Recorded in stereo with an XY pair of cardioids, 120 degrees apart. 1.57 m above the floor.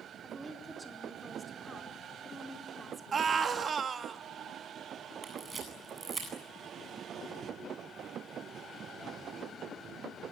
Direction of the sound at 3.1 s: 35° right.